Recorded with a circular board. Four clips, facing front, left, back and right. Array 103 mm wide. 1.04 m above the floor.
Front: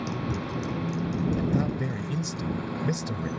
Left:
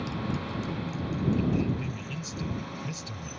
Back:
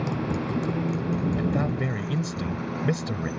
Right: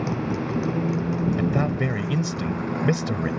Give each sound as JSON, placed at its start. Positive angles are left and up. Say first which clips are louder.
{"t": 0.0, "sound": "a motorcycle", "louder": "right 7 dB, back 3 dB", "azimuth_deg": -115}
{"t": 1.4, "sound": "a man speaking", "louder": "right 5 dB, back 1 dB", "azimuth_deg": -105}